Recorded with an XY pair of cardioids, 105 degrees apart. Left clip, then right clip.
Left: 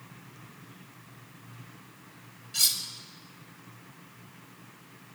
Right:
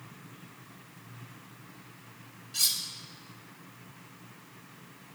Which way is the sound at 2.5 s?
10° left.